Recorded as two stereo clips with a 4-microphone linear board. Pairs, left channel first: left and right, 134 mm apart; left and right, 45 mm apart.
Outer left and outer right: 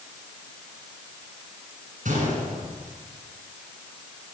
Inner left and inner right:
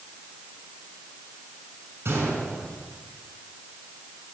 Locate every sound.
2.0 s a gunshot: 70° right (ahead or behind), 6.5 m